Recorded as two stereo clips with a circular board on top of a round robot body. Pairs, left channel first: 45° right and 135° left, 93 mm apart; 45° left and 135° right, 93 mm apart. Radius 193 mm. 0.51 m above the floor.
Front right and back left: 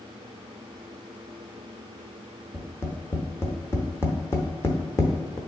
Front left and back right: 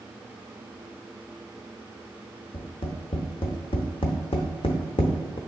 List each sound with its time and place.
2.5 s tapping: 15° left, 0.6 m